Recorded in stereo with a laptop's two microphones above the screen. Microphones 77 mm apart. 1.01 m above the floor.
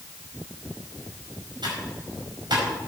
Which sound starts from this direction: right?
Typing on a keyboard, at 1.6 s.